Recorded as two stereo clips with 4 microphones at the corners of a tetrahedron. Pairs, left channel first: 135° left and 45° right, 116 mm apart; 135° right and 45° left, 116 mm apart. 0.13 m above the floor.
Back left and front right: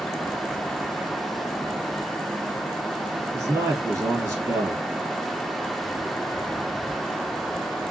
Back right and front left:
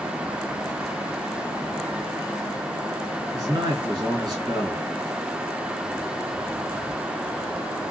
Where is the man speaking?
5° left, 2 m.